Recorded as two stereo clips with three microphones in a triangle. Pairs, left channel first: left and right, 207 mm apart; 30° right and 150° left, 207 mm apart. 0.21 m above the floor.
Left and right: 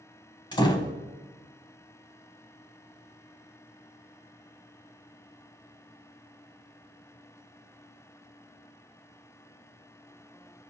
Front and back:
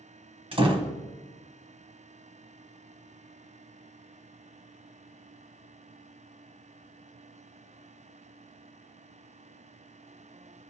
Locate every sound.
0.5 s a door slam: 130° left, 1.1 m